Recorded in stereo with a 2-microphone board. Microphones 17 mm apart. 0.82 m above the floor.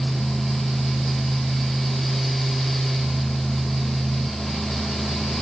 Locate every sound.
Only background noise.